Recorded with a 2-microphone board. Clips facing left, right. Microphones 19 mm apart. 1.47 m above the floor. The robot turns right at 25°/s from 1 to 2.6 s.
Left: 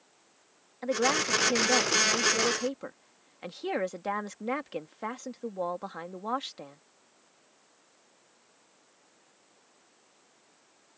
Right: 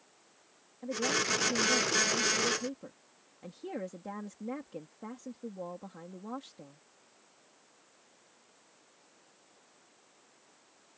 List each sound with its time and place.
0.8 s a woman speaking: 80° left; by 6.8 s 120° left